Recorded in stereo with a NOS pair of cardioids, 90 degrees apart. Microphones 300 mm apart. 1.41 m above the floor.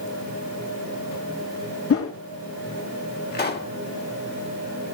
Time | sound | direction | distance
1.9 | a whoosh | 45° left | 2 m
3.3 | a pop | 30° left | 2.5 m